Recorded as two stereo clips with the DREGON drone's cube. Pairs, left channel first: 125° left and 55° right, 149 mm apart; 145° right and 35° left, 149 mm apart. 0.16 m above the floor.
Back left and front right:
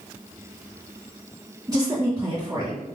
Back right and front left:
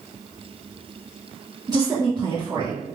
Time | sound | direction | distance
1.7 | a woman speaking | 10° right | 1.5 m